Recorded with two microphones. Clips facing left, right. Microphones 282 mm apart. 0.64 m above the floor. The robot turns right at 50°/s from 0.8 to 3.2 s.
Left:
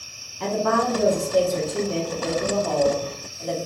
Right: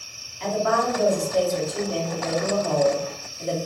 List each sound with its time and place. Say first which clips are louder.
0.4 s a woman speaking: left 1 dB; 95° left, 1.1 m; by 3.6 s 145° right, 1.1 m